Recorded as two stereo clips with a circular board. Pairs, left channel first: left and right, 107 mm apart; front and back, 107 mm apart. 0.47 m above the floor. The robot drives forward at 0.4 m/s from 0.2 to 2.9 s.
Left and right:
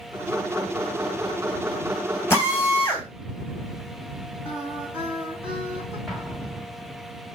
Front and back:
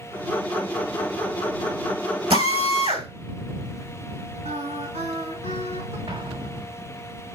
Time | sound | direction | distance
2.3 | a drill | 155° left | 3.5 m
4.5 | singing | 170° right | 5 m
6.1 | an explosion | 175° left | 1.3 m